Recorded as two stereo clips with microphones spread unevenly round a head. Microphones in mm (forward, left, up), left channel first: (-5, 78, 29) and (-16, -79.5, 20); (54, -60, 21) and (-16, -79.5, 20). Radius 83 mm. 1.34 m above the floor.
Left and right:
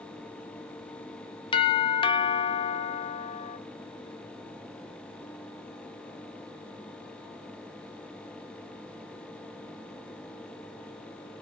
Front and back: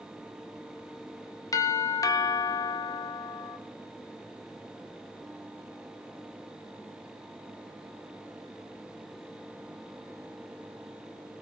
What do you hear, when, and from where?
1.5 s a doorbell: 35° left, 1.0 m